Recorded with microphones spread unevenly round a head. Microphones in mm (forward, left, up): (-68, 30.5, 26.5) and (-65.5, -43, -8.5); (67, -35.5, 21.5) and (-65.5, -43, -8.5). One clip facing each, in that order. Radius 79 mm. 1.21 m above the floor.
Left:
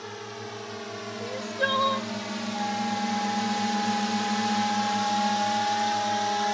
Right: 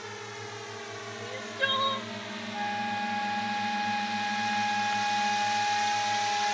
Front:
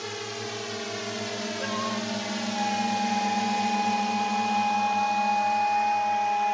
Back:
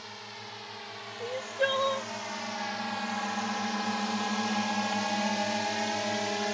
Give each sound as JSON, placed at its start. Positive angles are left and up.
{"t": 0.0, "sound": "a drone", "azimuth_deg": 25}
{"t": 1.2, "sound": "crying", "azimuth_deg": 140}
{"t": 2.5, "sound": "a flute", "azimuth_deg": 15}